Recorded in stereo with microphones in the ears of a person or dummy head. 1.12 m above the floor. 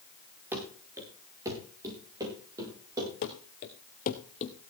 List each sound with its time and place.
0.5 s running footsteps: 10° right (ahead or behind), 4.5 m; by 3.1 s 20° right (ahead or behind), 8.5 m
3.2 s running footsteps: 45° left (ahead or behind), 1.6 m; by 4.5 s 35° left (ahead or behind), 2 m